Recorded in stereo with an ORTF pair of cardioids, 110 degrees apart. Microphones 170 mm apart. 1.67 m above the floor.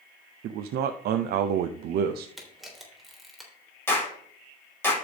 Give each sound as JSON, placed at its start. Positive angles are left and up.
{"t": 0.4, "sound": "a man speaking", "azimuth_deg": -70, "distance_m": 0.7}
{"t": 2.4, "sound": "a camera shutter", "azimuth_deg": 0, "distance_m": 3.5}
{"t": 3.9, "sound": "a clap", "azimuth_deg": 10, "distance_m": 6.5}